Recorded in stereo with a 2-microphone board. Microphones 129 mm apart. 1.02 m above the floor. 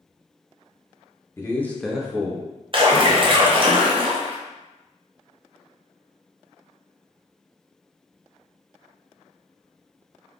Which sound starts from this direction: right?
A splash, at 2.7 s.